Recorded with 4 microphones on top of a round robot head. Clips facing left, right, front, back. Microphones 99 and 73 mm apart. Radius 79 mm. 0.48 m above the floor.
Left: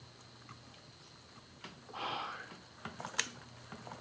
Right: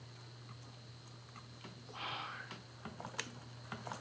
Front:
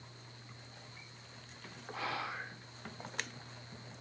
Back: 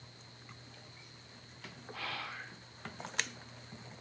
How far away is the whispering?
About 1.8 m.